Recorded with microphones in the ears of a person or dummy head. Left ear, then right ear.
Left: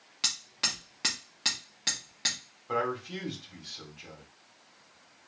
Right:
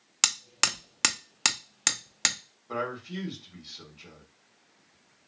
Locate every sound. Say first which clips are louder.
0.2 s hammering: right 4 dB; 55° right (ahead or behind), 0.6 m
2.7 s a man speaking: left 2 dB; 45° left (ahead or behind), 2 m